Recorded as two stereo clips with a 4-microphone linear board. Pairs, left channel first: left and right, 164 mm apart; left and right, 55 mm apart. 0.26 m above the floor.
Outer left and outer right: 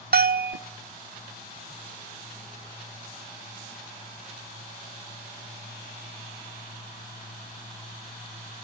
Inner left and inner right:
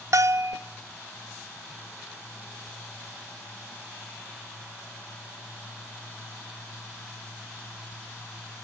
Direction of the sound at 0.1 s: 65° right (ahead or behind).